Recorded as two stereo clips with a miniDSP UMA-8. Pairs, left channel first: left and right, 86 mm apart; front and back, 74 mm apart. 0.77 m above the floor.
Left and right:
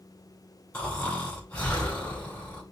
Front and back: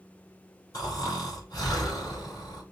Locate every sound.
0.7 s snoring: 20° left, 2.5 m